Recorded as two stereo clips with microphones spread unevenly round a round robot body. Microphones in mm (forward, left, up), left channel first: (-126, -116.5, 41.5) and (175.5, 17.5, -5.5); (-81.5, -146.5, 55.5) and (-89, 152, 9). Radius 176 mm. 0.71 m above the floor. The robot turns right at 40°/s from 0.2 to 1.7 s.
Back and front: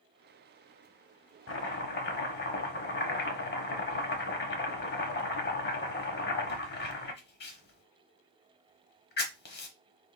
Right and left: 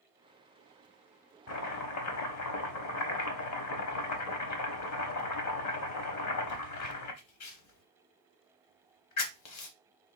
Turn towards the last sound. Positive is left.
turn(degrees=-105)